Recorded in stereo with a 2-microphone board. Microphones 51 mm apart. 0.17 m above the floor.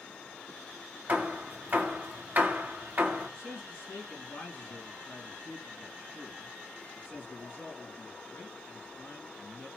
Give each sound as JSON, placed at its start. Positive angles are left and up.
{"t": 1.1, "sound": "hammering", "side_deg": -35, "distance_m": 1.2}
{"t": 3.3, "sound": "a man speaking", "side_deg": 50, "distance_m": 2.5}